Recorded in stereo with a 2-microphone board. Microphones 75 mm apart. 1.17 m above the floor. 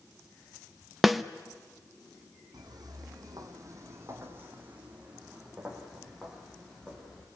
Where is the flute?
I don't hear a flute.